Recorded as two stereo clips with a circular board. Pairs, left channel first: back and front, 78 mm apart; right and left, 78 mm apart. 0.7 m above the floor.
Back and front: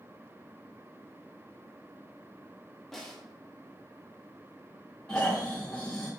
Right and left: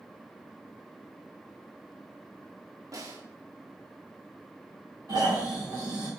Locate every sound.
2.9 s a snare drum: 95° left, 0.8 m
5.1 s snoring: 110° left, 2.0 m